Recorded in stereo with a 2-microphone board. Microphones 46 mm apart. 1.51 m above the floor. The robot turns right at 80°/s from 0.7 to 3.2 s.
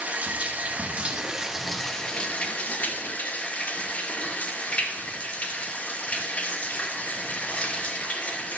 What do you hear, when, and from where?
0.0 s running water: 80° right, 0.9 m; by 8.6 s 120° left, 0.9 m